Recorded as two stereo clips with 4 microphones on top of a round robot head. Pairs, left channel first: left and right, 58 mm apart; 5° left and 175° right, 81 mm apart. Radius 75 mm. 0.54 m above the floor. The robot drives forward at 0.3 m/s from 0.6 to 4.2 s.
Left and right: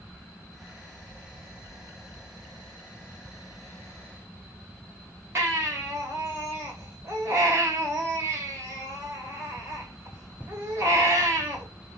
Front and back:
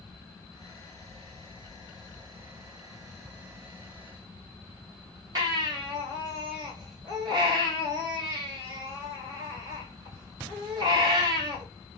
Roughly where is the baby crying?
Behind right.